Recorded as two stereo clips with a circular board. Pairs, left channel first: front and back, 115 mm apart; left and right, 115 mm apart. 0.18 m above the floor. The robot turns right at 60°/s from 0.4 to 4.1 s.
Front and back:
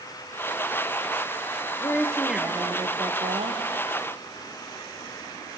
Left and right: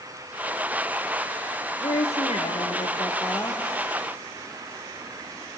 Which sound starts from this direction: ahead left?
A woman speaking, at 1.8 s.